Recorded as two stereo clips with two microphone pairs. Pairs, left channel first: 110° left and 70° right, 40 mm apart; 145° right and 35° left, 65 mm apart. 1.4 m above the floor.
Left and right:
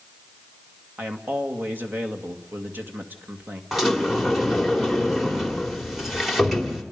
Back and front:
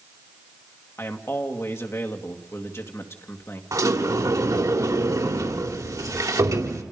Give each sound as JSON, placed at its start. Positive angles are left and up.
{"t": 1.0, "sound": "a man speaking", "azimuth_deg": -100, "distance_m": 2.5}
{"t": 3.7, "sound": "a sliding door", "azimuth_deg": 15, "distance_m": 2.5}